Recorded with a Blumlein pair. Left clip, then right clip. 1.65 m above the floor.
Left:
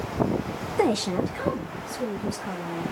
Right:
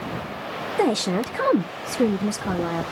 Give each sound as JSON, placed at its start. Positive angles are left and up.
{"t": 0.8, "sound": "a woman speaking", "azimuth_deg": 0, "distance_m": 0.7}